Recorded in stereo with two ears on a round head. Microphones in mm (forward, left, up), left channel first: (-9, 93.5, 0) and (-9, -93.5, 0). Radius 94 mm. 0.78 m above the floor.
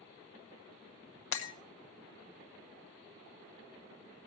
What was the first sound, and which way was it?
Breaking glass, 60° left (ahead or behind).